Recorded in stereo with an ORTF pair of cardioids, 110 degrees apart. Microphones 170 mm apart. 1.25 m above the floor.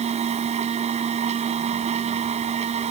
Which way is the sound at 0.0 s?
40° right.